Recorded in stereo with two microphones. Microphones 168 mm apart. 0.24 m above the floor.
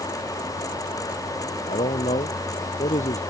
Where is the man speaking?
45° left (ahead or behind).